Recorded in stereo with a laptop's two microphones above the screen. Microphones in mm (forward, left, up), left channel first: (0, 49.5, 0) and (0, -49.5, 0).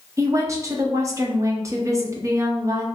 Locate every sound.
0.2 s a woman speaking: 30° right (ahead or behind), 0.6 m